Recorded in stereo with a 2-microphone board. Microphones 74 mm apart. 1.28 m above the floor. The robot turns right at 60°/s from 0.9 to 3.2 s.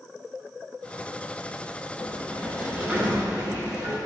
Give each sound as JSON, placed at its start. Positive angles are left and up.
{"t": 2.0, "sound": "a sliding door", "azimuth_deg": 145, "distance_m": 6.0}